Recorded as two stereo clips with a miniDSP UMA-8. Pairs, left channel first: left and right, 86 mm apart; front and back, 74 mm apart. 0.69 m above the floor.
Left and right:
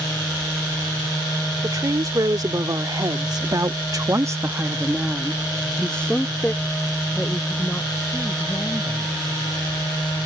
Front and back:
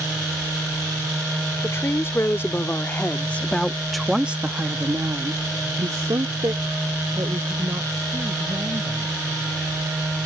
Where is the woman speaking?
50° right; by 9.1 s 150° left.